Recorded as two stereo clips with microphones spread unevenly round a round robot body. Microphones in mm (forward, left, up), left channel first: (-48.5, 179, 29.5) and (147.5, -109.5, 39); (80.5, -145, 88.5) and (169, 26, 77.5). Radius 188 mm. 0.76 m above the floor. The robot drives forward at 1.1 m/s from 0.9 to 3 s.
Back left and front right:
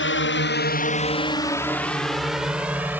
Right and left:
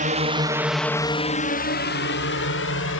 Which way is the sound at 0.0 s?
85° left.